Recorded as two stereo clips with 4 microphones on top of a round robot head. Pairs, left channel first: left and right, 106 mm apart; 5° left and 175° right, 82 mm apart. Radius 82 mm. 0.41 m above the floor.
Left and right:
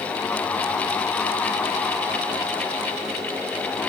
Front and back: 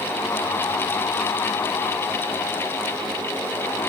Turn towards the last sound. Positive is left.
No sound to turn to.